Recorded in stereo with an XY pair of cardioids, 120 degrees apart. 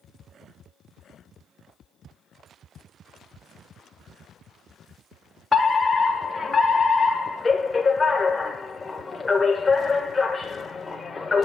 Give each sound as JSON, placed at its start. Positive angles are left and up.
{"t": 5.5, "sound": "a fire alarm", "azimuth_deg": 20, "distance_m": 1.5}